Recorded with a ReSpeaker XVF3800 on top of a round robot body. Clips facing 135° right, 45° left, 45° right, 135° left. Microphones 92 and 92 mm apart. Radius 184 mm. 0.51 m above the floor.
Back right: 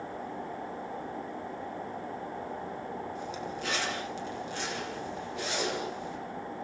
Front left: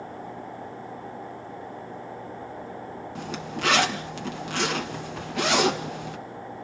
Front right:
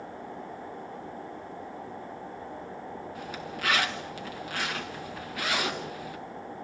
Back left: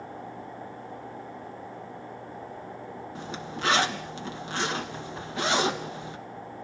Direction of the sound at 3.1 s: 70° left.